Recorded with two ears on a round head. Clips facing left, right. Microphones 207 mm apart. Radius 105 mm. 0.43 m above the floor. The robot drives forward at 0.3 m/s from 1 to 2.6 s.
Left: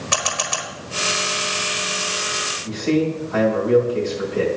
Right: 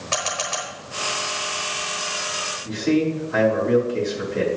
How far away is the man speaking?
About 3.5 m.